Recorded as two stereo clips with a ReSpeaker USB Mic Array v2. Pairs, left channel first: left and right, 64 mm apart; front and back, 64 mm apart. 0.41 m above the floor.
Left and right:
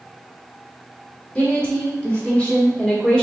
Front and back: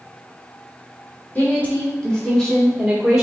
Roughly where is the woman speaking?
Ahead left.